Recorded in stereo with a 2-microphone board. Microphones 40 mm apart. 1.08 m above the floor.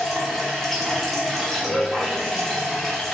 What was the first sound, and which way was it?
Running water, 5° left (ahead or behind).